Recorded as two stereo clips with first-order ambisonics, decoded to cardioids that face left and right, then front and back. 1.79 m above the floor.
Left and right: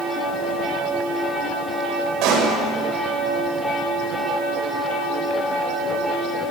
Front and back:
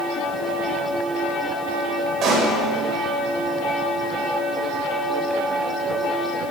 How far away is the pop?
About 8.5 m.